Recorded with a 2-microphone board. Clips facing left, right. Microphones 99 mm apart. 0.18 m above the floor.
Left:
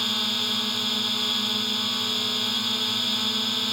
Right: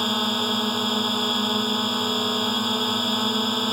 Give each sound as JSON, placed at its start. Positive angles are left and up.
{"t": 0.0, "sound": "a drone", "side_deg": -40}